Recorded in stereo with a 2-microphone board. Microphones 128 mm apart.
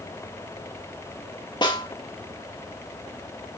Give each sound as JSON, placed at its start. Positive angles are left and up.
{"t": 1.6, "sound": "a snare drum", "side_deg": 40, "distance_m": 1.5}